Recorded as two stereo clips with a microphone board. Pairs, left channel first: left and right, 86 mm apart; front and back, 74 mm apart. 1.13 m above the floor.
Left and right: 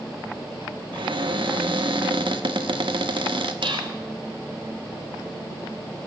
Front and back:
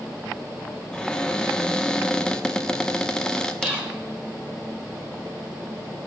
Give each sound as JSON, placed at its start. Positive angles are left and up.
{"t": 0.9, "sound": "a cupboard door", "azimuth_deg": -80, "distance_m": 1.1}
{"t": 3.6, "sound": "whispering", "azimuth_deg": -110, "distance_m": 5.0}